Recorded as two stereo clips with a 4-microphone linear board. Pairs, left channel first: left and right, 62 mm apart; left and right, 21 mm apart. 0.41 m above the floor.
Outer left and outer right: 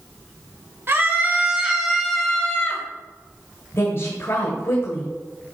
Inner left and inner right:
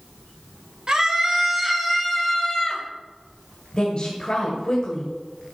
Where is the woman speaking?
50° left (ahead or behind), 1.9 m.